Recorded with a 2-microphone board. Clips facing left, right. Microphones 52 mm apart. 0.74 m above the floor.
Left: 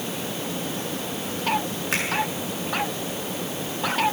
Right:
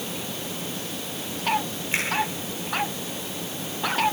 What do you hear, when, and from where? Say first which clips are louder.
1.9 s a finger snap: even; 70° left (ahead or behind), 9 m